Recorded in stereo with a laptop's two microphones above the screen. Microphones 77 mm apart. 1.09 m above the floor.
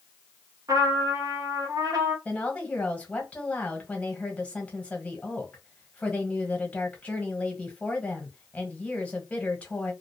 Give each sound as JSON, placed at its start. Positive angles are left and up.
{"t": 0.7, "sound": "a trumpet", "side_deg": -50, "distance_m": 0.7}
{"t": 2.2, "sound": "a woman speaking", "side_deg": 15, "distance_m": 1.1}